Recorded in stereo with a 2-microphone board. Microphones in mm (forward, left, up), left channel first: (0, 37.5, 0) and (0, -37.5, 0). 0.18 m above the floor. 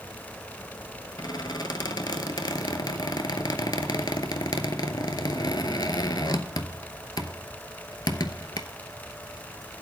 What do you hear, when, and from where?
1.2 s a squeak: 65° left (ahead or behind), 0.8 m